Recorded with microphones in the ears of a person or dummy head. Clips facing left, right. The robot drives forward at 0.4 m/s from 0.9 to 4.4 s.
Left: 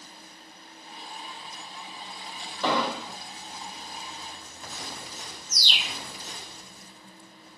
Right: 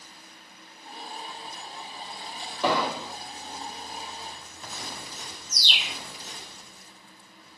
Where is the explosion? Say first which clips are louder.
Right 1 dB; 10° right (ahead or behind), 1.6 m; by 3.2 s 5° right (ahead or behind), 1.8 m.